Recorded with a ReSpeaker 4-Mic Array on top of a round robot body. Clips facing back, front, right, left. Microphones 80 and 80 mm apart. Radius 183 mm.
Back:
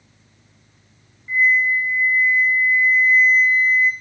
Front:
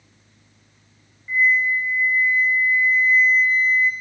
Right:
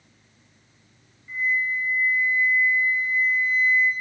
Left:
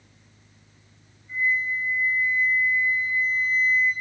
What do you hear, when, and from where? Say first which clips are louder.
1.3 s a flute: back 1 dB, even; 90° right, 1.0 m